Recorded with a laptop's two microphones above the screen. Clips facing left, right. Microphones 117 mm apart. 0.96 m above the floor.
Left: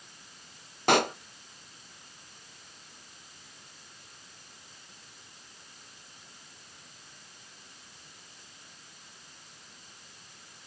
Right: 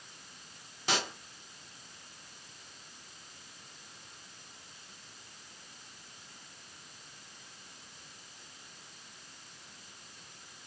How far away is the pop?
About 0.5 m.